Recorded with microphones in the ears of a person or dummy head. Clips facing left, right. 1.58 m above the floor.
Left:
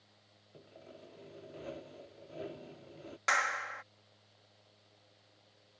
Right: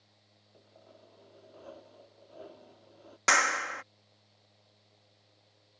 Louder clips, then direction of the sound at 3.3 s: Right 7 dB; 55° right (ahead or behind).